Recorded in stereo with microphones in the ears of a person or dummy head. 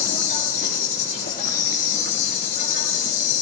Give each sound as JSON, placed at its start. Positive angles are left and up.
{"t": 0.0, "sound": "an insect", "side_deg": 50, "distance_m": 7.0}